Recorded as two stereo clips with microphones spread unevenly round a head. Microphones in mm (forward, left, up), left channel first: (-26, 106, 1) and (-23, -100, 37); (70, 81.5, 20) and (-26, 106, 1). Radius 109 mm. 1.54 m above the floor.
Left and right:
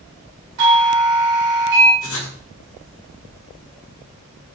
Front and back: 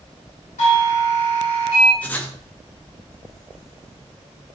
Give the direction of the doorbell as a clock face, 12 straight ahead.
2 o'clock.